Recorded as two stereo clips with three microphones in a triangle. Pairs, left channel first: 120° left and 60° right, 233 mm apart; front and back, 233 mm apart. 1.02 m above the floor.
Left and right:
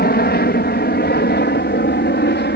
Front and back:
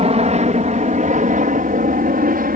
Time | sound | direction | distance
0.0 | an aircraft | 130° left | ?